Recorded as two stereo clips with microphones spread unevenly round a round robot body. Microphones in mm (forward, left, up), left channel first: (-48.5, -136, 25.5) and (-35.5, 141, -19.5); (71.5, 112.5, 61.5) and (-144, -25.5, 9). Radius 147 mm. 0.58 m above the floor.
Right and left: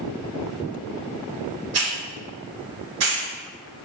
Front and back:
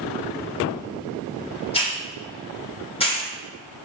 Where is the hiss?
105° left, 2.5 m.